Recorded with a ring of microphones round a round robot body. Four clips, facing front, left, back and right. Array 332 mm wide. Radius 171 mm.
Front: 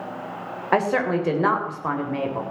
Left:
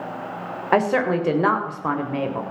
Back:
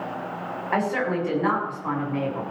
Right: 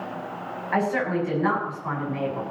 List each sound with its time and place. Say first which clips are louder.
0.7 s a woman speaking: left 5 dB, front 4 dB; 65° left, 3.5 m